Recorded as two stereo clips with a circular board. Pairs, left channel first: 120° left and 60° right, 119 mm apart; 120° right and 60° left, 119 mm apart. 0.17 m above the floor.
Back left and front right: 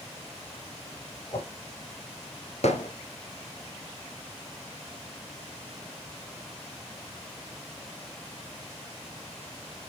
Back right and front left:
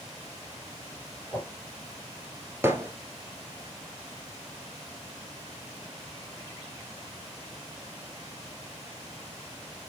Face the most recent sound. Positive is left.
turn(degrees=130)